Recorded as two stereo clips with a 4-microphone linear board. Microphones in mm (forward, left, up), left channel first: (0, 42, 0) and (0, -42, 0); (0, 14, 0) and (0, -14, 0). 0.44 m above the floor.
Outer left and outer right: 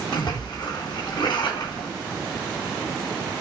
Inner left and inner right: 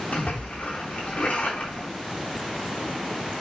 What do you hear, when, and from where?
0.1 s a splash: 60° left (ahead or behind), 3.5 m